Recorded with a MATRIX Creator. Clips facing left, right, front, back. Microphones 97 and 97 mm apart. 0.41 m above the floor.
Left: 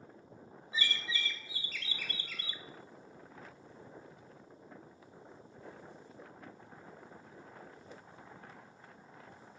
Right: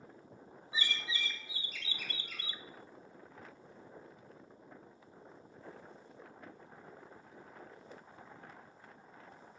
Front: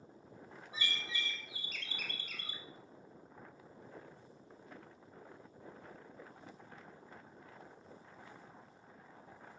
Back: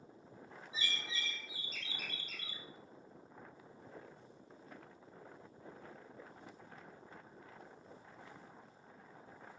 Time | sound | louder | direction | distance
0.7 | a bird | left 1 dB, front 2 dB | 20° right | 0.9 m